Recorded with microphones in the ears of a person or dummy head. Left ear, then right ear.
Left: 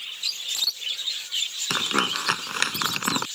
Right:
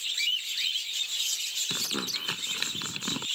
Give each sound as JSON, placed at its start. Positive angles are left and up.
{"t": 1.7, "sound": "crumpling", "side_deg": 40}